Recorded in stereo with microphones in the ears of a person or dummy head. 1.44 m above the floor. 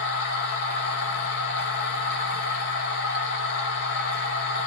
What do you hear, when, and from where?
0.0 s a machine running: 60° left (ahead or behind), 1.0 m